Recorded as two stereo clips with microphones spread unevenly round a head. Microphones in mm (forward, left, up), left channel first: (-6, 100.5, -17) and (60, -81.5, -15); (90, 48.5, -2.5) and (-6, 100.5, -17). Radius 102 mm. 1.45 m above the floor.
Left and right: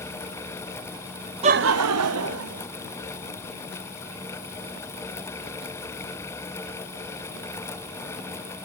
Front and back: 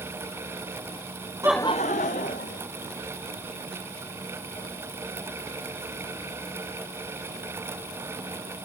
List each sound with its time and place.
1.4 s laughter: 135° right, 0.5 m; by 2.7 s 65° right, 1.9 m